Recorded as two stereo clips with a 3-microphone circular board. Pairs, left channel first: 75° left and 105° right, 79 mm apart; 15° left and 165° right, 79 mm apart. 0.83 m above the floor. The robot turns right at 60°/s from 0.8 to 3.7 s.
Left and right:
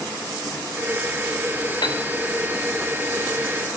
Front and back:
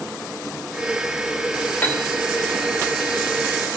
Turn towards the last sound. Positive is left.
turn(degrees=-165)